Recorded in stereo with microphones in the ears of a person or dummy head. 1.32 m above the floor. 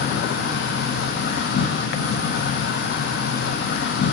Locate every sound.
0.0 s an insect: 65° left (ahead or behind), 0.7 m